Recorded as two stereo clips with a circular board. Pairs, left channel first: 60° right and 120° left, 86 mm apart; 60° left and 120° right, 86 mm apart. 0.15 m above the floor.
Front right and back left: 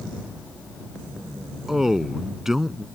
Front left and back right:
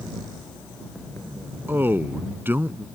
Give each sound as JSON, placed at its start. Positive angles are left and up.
{"t": 1.7, "sound": "a man speaking", "azimuth_deg": -160}